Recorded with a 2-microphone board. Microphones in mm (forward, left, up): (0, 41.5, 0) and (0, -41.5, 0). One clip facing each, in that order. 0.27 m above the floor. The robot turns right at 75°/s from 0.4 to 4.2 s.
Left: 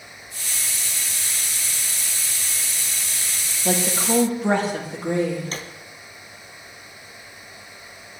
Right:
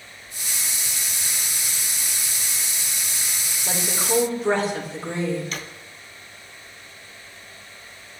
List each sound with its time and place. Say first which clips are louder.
3.6 s a woman speaking: left 4 dB; 80° left, 7 m; by 5.5 s 120° left, 7 m
5.5 s a drawer: left 1 dB; 40° left (ahead or behind), 1.8 m